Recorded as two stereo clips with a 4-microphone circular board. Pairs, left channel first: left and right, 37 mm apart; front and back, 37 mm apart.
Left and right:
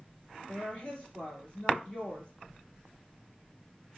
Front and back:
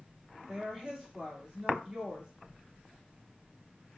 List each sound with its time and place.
0.5 s a woman speaking: 125° left, 1.9 m